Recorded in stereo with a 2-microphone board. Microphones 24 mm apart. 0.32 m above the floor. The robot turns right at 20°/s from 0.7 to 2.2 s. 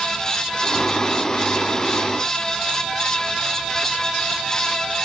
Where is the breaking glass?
No breaking glass in this recording.